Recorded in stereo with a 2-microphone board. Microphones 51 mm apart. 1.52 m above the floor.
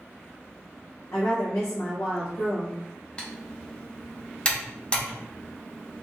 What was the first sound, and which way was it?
A woman speaking, 70° left (ahead or behind).